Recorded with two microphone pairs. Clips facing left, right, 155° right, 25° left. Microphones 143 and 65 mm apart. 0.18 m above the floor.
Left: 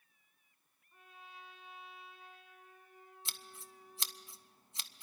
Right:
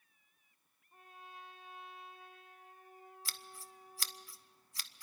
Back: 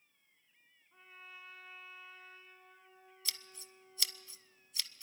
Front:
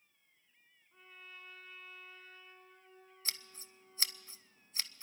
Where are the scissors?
40° left, 0.5 m.